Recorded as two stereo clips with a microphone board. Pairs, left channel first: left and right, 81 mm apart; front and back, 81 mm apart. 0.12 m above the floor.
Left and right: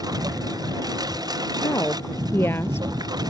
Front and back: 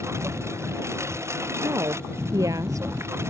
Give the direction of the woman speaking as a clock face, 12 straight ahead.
7 o'clock.